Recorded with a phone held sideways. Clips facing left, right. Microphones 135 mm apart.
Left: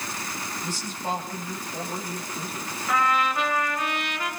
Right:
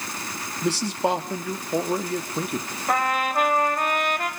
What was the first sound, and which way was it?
A man speaking, 70° right (ahead or behind).